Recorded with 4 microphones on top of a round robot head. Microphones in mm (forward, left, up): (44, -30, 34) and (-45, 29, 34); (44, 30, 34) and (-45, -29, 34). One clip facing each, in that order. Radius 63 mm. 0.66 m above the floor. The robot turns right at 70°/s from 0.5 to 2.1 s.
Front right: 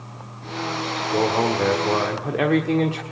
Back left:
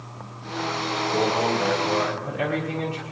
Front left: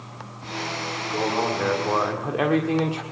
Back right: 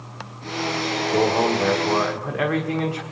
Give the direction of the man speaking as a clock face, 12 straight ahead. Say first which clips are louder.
Front right 3 dB, back right 5 dB; 3 o'clock.